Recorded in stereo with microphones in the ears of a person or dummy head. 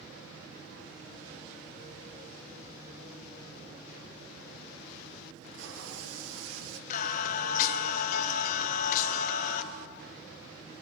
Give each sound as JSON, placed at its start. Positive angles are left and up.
{"t": 5.3, "sound": "tape being pulled", "side_deg": -75, "distance_m": 1.2}
{"t": 6.9, "sound": "singing", "side_deg": 50, "distance_m": 1.1}